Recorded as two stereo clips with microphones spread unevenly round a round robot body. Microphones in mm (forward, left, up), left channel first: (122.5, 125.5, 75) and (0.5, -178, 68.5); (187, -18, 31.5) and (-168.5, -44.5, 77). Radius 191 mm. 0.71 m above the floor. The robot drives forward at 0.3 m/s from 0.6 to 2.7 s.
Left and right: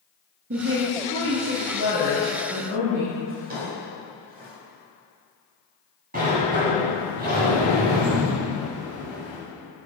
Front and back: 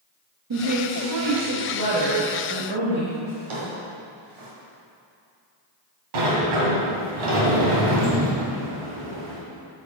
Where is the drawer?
Straight behind, 1.9 m.